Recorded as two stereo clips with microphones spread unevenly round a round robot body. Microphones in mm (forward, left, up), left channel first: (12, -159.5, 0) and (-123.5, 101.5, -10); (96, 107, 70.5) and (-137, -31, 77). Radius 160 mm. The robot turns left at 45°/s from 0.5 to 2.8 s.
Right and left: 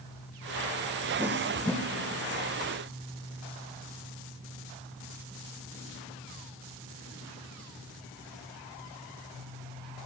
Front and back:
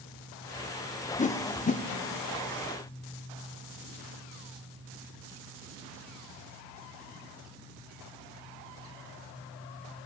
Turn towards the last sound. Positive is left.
turn(degrees=-25)